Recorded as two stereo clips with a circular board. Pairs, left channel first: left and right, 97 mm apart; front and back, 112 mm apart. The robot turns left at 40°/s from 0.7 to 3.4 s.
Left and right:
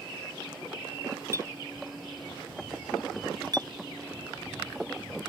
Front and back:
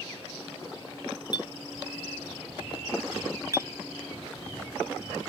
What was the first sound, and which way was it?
A clink, 35° right.